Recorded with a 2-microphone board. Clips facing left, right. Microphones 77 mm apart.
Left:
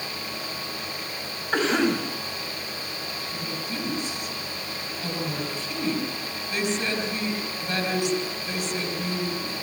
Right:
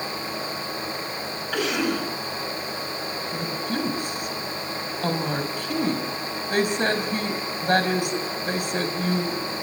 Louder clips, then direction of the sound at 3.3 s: Right 6 dB; 55° right (ahead or behind).